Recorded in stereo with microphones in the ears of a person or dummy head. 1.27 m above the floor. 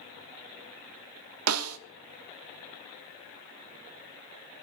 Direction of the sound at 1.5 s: 85° right.